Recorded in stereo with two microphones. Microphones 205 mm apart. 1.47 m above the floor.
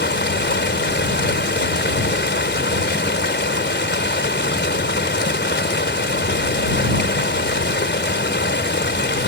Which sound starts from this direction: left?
Running water, at 0.0 s.